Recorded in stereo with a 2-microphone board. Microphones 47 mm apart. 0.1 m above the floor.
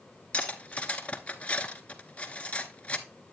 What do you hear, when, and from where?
0.3 s cutlery clinking: 25° left (ahead or behind), 0.8 m